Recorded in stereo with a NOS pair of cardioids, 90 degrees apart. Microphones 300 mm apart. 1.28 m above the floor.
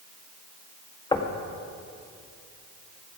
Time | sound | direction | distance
1.1 | knocking | 15° left | 1.6 m